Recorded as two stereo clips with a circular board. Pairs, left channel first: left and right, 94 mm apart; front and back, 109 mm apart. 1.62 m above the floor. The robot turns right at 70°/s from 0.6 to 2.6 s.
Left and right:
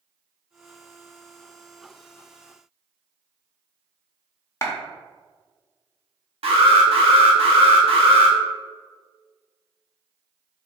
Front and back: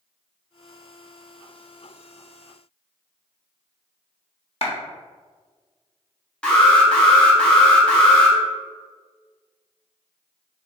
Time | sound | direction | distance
4.6 | a clap | 30° left | 0.9 m
6.4 | an alarm | 85° right | 1.2 m